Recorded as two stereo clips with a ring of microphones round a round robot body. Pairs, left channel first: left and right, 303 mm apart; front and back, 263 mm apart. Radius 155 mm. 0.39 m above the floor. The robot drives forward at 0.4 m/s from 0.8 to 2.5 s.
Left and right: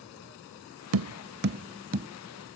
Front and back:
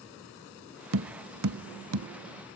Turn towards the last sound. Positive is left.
turn(degrees=-160)